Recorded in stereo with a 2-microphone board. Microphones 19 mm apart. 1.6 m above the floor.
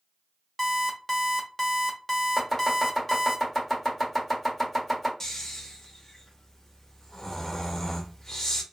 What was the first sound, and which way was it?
An alarm clock, 20° left (ahead or behind).